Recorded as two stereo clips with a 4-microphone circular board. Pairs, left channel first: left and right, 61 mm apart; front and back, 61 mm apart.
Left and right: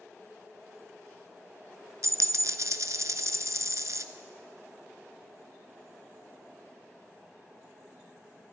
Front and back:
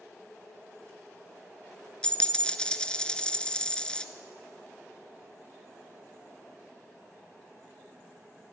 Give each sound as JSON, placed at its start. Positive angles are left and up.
{"t": 2.0, "sound": "a dropped coin", "azimuth_deg": -75, "distance_m": 0.6}